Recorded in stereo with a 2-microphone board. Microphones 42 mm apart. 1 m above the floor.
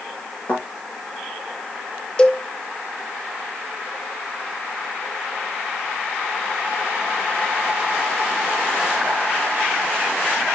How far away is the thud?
About 5 m.